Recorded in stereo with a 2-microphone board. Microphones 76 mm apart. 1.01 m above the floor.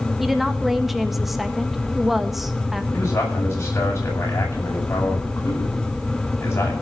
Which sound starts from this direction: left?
A man speaking, at 2.9 s.